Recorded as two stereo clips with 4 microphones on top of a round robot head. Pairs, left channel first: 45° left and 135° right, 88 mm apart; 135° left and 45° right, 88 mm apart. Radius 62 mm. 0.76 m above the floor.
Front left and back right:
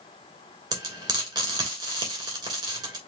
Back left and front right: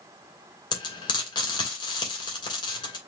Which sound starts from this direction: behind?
Frying, at 0.7 s.